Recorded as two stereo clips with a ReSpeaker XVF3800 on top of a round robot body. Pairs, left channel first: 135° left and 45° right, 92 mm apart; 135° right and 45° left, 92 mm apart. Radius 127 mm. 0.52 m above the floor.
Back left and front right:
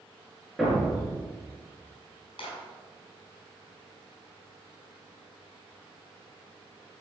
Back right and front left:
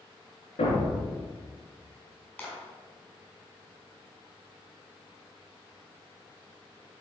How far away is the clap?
About 4 m.